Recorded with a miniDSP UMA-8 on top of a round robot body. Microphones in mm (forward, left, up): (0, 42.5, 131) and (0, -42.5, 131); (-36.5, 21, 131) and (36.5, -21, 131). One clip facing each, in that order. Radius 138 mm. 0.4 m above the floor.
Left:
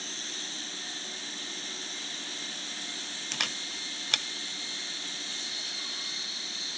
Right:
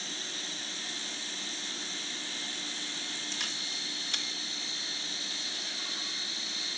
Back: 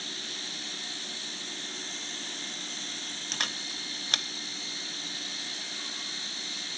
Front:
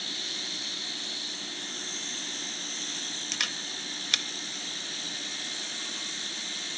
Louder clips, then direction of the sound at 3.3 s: Left 3 dB, back 1 dB; 100° left.